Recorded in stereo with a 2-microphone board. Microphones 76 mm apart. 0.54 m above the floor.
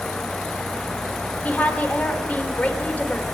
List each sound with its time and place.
1.4 s a woman speaking: 20° left (ahead or behind), 2 m